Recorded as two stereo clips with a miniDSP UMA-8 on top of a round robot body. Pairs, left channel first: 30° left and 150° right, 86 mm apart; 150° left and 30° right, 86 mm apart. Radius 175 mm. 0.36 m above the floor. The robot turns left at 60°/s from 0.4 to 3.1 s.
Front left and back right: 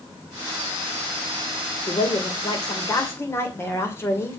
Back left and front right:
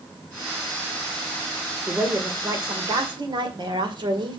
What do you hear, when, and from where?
1.9 s a woman speaking: 50° left, 2.5 m; by 4.4 s 25° right, 2.5 m